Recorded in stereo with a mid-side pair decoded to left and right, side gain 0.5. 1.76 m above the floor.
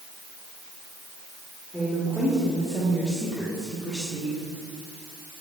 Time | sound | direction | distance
1.7 | a woman speaking | straight ahead | 4.5 m